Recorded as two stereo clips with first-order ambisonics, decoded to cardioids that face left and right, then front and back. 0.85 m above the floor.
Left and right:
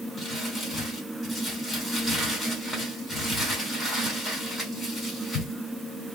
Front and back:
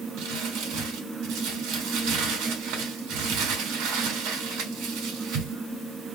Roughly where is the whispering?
No whispering in this recording.